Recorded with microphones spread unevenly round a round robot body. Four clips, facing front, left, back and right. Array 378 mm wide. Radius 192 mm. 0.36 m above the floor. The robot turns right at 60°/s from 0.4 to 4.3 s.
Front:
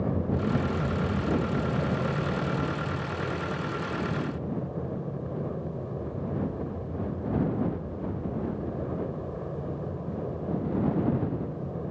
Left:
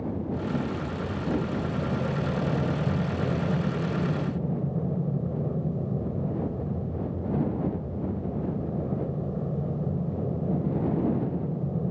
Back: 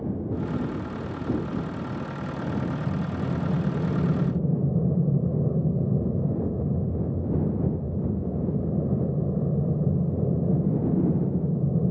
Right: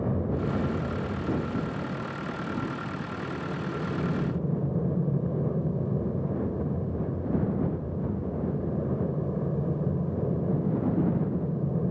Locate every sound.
0.0 s an aircraft: 50° right; by 11.9 s 175° right